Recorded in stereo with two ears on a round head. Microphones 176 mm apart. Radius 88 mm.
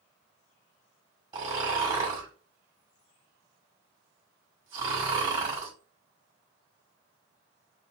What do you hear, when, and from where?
1.3 s snoring: 25° right (ahead or behind), 1.7 m